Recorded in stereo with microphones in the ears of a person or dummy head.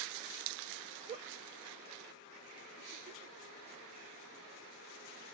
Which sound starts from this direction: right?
A giggle, at 1.1 s.